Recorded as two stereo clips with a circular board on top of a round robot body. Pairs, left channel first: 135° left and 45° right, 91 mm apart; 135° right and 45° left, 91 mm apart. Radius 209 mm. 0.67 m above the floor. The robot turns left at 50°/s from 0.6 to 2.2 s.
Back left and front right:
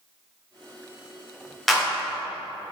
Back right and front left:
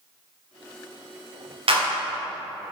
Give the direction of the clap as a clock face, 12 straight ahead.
10 o'clock.